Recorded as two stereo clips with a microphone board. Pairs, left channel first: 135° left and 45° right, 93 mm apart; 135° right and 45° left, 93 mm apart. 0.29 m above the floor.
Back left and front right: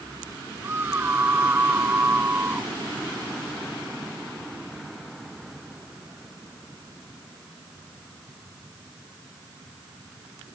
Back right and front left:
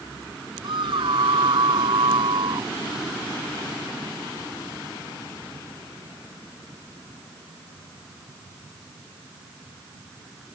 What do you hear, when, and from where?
0.6 s a scream: 20° left; by 2.7 s 25° left